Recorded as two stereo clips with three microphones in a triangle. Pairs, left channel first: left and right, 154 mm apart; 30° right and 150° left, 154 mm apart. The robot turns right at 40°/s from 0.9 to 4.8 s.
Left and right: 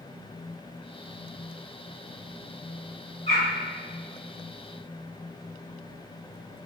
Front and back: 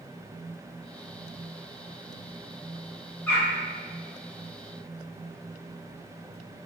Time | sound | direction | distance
3.3 | a bird | 45° left | 1.8 m